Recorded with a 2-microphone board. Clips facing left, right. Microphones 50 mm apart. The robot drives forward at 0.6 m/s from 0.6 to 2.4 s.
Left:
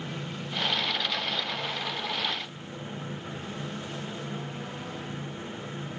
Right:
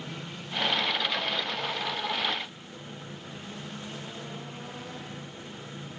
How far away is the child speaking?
No child speaking in this recording.